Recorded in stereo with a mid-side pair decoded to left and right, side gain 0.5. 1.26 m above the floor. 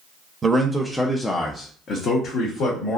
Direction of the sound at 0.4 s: 30° right.